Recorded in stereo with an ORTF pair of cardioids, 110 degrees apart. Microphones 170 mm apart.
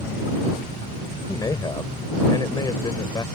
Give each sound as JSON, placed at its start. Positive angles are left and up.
{"t": 1.3, "sound": "a man speaking", "azimuth_deg": 25}